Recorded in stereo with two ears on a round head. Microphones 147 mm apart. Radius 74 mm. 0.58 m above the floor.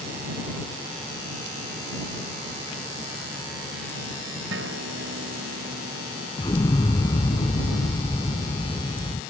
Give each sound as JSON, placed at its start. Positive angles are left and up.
{"t": 4.5, "sound": "a guitar", "side_deg": -90}
{"t": 6.4, "sound": "an explosion", "side_deg": 25}